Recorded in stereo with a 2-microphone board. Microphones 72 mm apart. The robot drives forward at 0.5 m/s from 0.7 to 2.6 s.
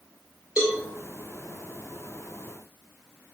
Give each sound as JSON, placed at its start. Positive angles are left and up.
{"t": 0.6, "sound": "a cowbell", "side_deg": -15, "distance_m": 1.8}